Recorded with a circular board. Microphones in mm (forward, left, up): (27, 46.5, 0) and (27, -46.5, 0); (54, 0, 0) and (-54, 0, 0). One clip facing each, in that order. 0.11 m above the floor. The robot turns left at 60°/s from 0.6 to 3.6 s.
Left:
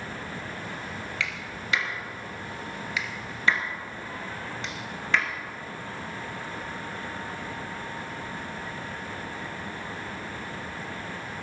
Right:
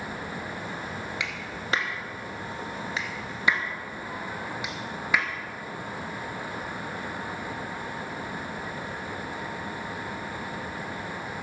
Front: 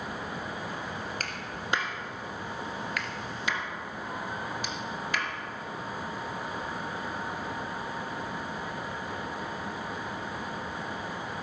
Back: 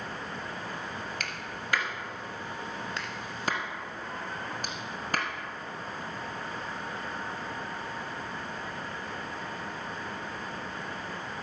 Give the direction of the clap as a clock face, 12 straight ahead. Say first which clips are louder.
Even, front 1 dB; 1 o'clock.